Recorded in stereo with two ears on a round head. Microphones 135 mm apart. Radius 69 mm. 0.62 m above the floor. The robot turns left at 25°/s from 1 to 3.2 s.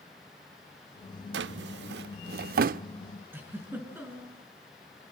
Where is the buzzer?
No buzzer in this recording.